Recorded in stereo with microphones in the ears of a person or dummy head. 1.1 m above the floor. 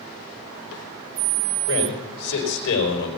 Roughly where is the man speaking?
Left.